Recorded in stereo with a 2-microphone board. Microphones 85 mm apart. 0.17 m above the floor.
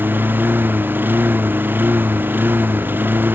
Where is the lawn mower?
25° right (ahead or behind).